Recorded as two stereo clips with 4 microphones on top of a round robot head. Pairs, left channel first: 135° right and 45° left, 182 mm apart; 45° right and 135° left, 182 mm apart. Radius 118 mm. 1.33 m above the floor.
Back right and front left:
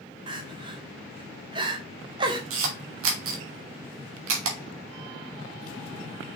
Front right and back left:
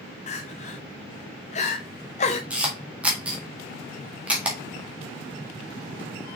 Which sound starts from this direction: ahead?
Crying, at 0.3 s.